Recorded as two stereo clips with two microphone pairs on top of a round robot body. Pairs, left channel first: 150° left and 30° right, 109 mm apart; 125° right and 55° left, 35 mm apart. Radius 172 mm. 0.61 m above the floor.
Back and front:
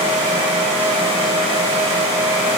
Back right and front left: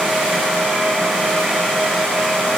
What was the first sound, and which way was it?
Only background noise.